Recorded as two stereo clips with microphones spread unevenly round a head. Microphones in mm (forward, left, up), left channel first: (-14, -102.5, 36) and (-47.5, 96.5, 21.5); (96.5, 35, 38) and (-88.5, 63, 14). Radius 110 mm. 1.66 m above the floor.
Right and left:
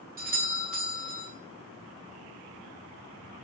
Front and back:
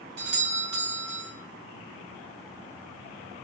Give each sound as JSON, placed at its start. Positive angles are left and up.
{"t": 0.2, "sound": "a doorbell", "azimuth_deg": 145, "distance_m": 5.5}